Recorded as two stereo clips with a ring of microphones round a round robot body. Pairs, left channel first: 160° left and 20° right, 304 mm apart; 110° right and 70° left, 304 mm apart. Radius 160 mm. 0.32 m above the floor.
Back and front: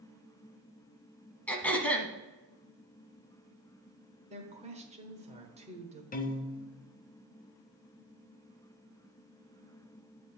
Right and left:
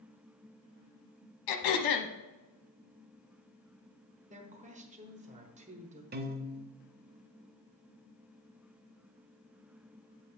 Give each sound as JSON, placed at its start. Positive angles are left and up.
{"t": 1.5, "sound": "throat clearing", "azimuth_deg": -115, "distance_m": 1.0}
{"t": 4.3, "sound": "a woman speaking", "azimuth_deg": 25, "distance_m": 1.2}
{"t": 6.1, "sound": "a piano", "azimuth_deg": 110, "distance_m": 0.7}